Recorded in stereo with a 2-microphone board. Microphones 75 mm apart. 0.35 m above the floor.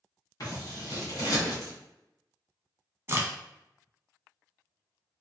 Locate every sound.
0.4 s scissors: 55° left (ahead or behind), 1.4 m
3.1 s a crack: 35° right (ahead or behind), 0.6 m